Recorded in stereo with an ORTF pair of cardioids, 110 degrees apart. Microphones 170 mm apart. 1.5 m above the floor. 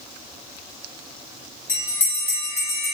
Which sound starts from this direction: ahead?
A bell, at 1.7 s.